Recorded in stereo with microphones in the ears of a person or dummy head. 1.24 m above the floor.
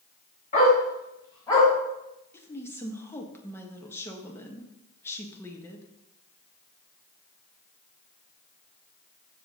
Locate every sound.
0.5 s a dog barking: 40° left (ahead or behind), 3 m; by 1.7 s 15° left (ahead or behind), 3 m
2.3 s a woman speaking: 15° left (ahead or behind), 1.4 m